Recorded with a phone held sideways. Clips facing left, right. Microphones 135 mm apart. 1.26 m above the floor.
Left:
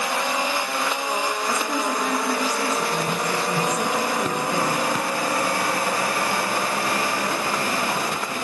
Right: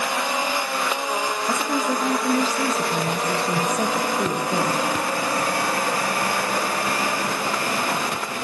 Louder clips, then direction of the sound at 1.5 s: Right 1 dB; 30° right (ahead or behind).